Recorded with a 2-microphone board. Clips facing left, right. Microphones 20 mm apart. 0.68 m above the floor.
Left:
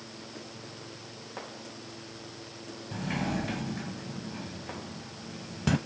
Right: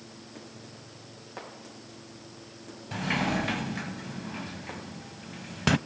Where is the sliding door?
40° right (ahead or behind), 0.6 m.